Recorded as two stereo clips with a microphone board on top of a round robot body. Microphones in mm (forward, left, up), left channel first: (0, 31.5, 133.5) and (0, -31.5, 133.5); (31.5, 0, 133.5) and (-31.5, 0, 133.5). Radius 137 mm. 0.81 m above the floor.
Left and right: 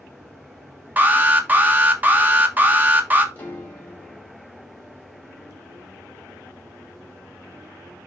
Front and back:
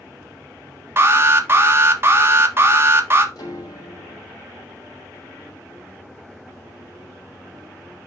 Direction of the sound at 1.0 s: 140° right.